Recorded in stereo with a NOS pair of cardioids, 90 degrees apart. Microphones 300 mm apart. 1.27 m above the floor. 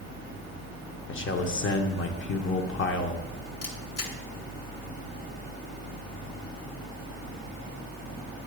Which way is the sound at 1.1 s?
40° left.